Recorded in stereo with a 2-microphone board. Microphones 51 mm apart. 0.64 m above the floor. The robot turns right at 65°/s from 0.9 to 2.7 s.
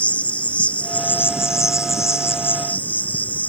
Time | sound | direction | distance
0.0 | an insect | 30° left | ?